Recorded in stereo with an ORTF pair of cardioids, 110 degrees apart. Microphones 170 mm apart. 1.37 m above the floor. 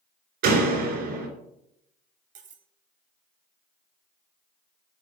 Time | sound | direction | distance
0.4 | a door slam | 70° right | 3.5 m
2.4 | cutlery clinking | 50° right | 1.5 m